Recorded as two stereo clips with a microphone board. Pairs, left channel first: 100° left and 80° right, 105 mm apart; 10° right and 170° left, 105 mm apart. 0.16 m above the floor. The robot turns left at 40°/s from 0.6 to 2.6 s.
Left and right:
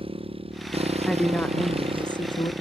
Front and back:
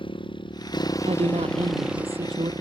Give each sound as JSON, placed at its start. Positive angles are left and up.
{"t": 0.0, "sound": "a motorcycle", "azimuth_deg": -50}
{"t": 1.1, "sound": "a woman speaking", "azimuth_deg": -170}